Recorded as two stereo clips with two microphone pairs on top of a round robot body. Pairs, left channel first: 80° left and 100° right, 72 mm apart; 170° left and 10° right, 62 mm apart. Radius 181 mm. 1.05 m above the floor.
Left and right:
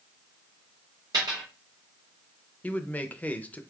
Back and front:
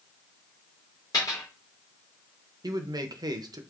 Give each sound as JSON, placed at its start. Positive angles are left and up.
{"t": 1.1, "sound": "a dropped coin", "azimuth_deg": -150, "distance_m": 0.6}
{"t": 2.6, "sound": "a man speaking", "azimuth_deg": 10, "distance_m": 0.7}